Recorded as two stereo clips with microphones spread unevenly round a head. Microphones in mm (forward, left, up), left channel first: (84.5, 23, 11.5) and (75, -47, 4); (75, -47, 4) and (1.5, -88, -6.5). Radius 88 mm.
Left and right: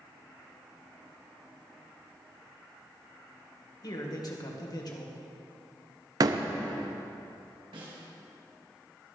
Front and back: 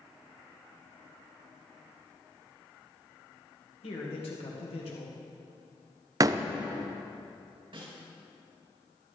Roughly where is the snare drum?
Behind right.